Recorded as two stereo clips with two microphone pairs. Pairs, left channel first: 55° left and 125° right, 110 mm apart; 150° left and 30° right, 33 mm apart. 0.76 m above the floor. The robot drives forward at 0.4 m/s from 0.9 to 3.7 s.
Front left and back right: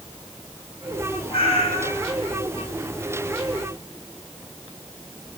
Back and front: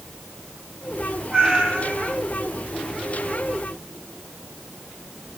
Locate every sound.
1.3 s a cat meowing: 30° left, 6 m; by 2.2 s 35° left, 5.5 m